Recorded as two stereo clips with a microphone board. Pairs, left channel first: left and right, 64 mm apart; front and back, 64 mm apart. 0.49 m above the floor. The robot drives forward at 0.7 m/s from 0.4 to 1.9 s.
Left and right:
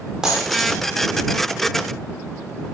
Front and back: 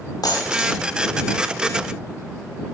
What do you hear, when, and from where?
0.2 s a dropped coin: 10° right, 7.5 m